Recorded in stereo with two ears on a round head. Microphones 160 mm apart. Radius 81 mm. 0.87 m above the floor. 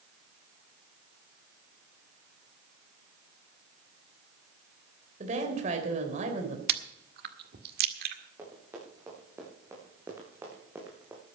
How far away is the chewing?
About 1.8 m.